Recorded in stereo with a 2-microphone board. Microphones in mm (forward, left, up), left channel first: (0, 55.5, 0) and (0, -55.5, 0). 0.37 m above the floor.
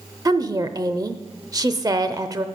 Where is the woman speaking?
30° right (ahead or behind), 0.9 m.